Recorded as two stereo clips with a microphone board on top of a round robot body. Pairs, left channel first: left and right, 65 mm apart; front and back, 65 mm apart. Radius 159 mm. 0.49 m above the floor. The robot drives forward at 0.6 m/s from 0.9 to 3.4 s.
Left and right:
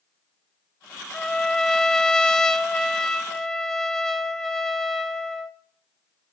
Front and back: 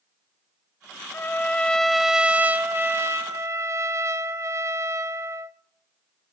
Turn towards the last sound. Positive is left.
turn(degrees=170)